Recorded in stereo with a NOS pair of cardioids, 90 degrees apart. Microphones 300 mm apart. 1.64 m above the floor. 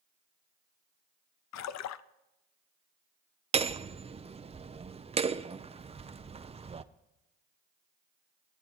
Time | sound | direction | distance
1.5 | a splash | 65° left | 0.6 m
3.5 | hammering | 20° right | 0.6 m